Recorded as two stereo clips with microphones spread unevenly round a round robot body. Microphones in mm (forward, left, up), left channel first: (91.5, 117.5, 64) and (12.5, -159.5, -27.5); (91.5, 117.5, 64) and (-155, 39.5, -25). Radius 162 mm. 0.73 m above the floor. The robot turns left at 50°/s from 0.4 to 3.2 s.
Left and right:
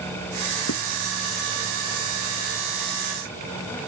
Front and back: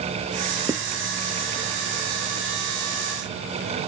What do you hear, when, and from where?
0.7 s writing: 120° left; by 0.8 s 115° left